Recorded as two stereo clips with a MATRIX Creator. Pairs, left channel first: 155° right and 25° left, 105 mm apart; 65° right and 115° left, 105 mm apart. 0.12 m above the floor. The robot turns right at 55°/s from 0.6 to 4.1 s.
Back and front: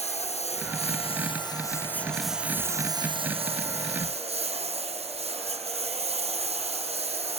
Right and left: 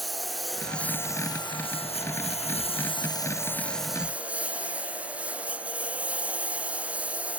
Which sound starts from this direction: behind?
A lawn mower, at 0.0 s.